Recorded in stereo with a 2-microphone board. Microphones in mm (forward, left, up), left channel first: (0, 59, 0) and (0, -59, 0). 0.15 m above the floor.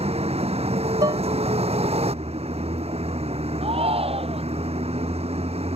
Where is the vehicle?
60° right (ahead or behind).